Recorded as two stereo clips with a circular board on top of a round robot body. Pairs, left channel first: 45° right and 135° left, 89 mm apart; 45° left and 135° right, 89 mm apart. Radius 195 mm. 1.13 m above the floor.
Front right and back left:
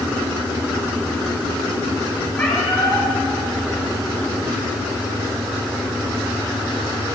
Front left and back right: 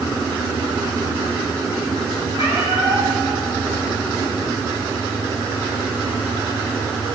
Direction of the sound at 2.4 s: 25° left.